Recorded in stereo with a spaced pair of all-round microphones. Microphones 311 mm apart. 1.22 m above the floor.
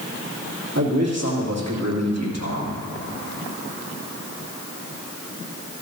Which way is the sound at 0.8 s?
55° right (ahead or behind).